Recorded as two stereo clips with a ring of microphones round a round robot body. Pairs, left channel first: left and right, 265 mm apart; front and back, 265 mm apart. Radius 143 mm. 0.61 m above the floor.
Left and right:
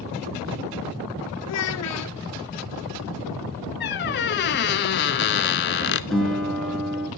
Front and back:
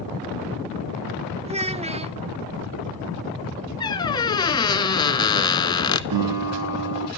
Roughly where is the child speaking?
Behind left.